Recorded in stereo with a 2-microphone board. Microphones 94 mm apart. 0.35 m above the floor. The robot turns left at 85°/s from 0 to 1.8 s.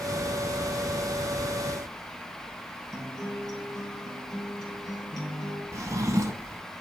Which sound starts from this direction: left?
A guitar, at 2.9 s.